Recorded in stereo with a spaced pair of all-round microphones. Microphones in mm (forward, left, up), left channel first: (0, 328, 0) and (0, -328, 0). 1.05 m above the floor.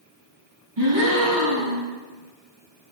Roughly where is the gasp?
Right.